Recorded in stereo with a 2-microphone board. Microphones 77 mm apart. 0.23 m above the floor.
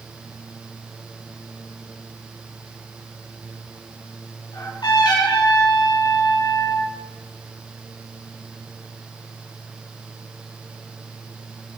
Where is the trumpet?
80° left, 5 m.